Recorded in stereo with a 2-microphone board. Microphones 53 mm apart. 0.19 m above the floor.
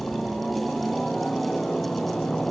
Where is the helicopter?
10° left (ahead or behind); by 2.5 s 15° left (ahead or behind).